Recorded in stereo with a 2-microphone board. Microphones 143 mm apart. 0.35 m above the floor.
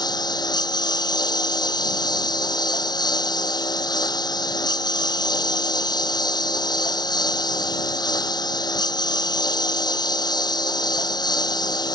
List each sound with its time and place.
0.0 s a lawn mower: 30° left (ahead or behind)